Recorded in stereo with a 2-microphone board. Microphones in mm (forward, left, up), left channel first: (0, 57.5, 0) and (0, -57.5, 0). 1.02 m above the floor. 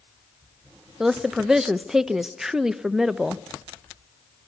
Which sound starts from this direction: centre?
A woman speaking, at 1.0 s.